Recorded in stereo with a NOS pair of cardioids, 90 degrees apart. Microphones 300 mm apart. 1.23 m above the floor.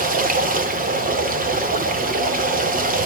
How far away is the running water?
About 2 m.